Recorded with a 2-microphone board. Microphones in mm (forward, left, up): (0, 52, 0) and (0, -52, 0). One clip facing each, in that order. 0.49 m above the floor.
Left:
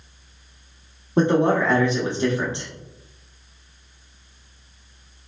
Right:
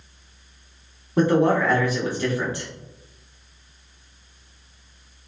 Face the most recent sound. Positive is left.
turn(degrees=25)  # may be behind; listen again after turning